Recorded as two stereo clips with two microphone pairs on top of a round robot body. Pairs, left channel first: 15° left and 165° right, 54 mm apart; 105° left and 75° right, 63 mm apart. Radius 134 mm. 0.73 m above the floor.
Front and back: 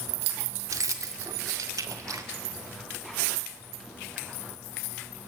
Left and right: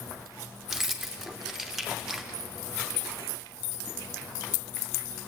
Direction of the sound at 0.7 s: 165° right.